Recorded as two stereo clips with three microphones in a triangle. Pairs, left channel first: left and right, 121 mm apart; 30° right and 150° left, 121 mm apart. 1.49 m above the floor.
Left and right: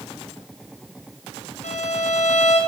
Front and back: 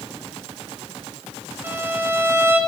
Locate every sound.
1.6 s a violin: 80° left, 1.0 m